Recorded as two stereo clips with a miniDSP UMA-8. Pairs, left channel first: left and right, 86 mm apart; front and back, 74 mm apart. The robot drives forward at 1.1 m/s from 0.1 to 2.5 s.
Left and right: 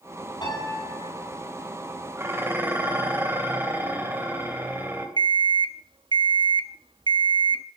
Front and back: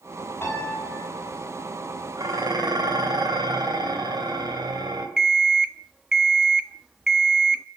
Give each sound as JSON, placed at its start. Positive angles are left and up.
{"t": 0.4, "sound": "a piano", "azimuth_deg": 65, "distance_m": 7.5}
{"t": 2.2, "sound": "dishes clattering", "azimuth_deg": -150, "distance_m": 2.5}
{"t": 5.2, "sound": "an alarm clock", "azimuth_deg": -95, "distance_m": 0.7}